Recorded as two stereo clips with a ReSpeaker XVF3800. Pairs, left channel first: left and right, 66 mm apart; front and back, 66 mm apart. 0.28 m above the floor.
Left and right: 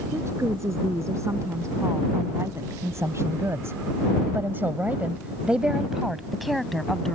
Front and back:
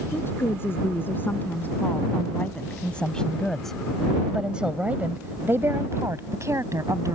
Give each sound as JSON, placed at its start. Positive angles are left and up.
{"t": 0.1, "sound": "a woman speaking", "azimuth_deg": -50}